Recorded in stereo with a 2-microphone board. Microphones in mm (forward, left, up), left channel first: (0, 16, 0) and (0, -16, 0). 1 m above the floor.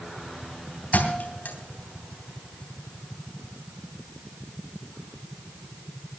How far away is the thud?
About 3 m.